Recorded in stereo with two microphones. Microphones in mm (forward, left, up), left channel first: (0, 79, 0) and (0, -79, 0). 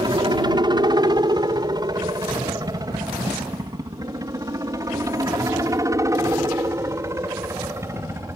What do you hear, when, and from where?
0.0 s a helicopter: 30° right (ahead or behind); by 8.4 s 15° right (ahead or behind)